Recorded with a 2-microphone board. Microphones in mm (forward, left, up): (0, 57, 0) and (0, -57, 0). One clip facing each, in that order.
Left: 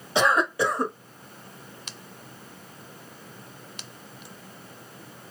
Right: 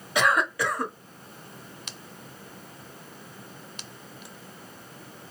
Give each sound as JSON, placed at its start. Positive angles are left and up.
{"t": 0.1, "sound": "a cough", "side_deg": 30, "distance_m": 1.0}